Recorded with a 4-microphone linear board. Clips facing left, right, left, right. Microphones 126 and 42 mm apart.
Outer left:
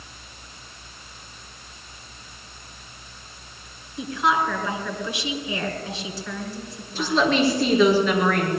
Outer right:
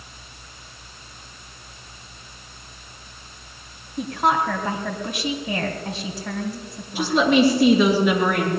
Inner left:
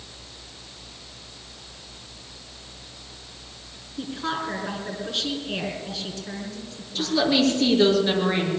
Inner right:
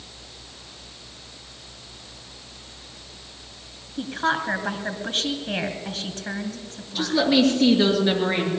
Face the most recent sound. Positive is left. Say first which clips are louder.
# outer right 3 dB, inner right 2 dB
turn(degrees=-10)  # may be behind; listen again after turning